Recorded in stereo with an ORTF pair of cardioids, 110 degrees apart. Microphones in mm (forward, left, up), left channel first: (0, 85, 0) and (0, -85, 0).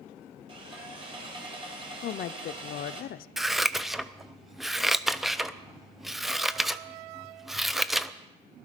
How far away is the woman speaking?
About 0.6 m.